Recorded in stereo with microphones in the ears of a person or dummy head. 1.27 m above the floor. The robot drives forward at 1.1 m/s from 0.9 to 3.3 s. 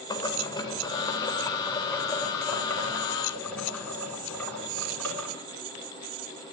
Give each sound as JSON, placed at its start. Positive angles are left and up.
{"t": 0.1, "sound": "boiling", "side_deg": 20, "distance_m": 1.9}